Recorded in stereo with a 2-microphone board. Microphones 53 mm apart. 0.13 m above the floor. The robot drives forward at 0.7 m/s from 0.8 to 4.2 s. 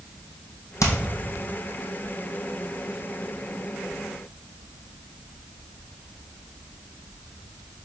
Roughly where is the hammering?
Left.